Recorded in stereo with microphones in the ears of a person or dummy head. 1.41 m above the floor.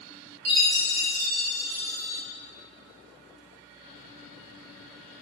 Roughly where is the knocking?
I don't hear knocking.